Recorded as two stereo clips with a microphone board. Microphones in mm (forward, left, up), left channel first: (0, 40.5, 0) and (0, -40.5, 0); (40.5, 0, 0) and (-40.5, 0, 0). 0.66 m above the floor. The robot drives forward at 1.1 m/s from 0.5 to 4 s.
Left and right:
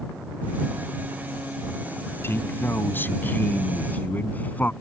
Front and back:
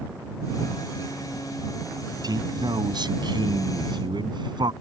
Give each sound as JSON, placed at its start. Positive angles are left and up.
{"t": 2.2, "sound": "a man speaking", "azimuth_deg": 150}